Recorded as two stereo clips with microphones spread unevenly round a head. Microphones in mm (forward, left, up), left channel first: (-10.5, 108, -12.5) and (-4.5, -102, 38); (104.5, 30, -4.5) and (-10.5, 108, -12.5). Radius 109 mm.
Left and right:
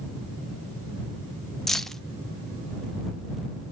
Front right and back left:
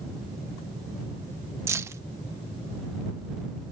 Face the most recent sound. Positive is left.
turn(degrees=-155)